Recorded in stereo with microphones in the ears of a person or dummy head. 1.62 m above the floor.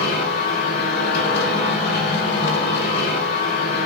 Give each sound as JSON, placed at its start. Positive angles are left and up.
{"t": 0.0, "sound": "a machine running", "side_deg": 65, "distance_m": 4.5}